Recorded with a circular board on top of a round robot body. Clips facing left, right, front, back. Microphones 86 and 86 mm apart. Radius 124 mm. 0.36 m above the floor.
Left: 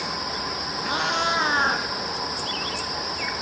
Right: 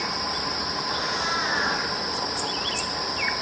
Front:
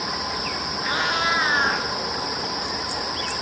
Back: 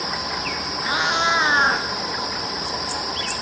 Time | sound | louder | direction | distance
0.8 | a cat meowing | left 6 dB, back 3 dB | 105° left | 1.9 m